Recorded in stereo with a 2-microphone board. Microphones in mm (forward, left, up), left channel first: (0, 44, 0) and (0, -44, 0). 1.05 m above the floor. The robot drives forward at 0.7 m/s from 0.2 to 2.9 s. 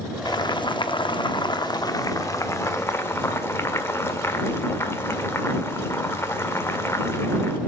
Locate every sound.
0.2 s boiling: 50° left (ahead or behind), 1.0 m; by 7.6 s 30° left (ahead or behind), 1.6 m